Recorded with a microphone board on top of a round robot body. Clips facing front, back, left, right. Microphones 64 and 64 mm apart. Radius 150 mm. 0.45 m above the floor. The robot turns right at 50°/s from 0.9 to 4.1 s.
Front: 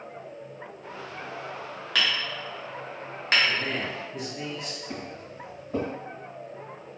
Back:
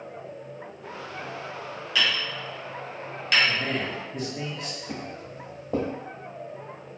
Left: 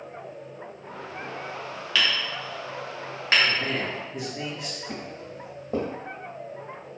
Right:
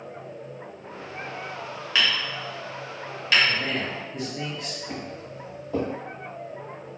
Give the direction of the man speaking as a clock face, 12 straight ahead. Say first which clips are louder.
Back 1 dB, even; 7 o'clock.